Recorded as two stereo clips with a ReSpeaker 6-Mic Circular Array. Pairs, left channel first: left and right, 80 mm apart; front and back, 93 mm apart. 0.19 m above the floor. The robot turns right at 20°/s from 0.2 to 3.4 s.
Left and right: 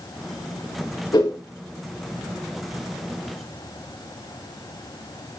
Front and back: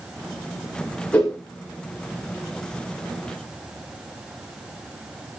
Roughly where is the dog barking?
No dog barking in this recording.